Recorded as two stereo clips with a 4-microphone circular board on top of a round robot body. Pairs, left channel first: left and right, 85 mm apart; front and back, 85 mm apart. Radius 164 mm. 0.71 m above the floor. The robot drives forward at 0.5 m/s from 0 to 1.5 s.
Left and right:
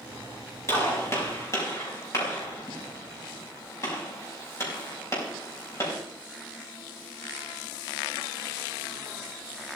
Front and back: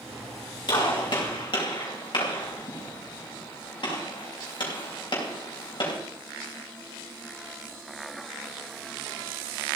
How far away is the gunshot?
About 6 m.